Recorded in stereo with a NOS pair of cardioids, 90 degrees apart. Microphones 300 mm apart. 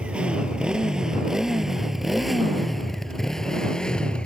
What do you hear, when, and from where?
0.0 s a motorcycle: 5° right; by 4.3 s 5° left